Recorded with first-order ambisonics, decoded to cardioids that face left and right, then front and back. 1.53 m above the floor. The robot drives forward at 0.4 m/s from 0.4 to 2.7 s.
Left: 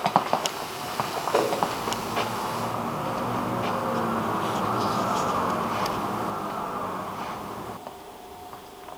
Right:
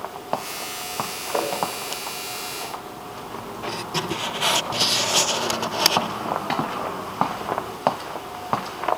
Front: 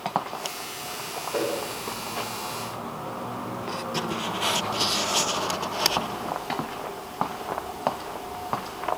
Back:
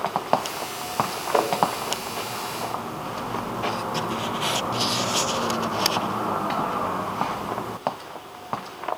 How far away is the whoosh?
About 2.5 m.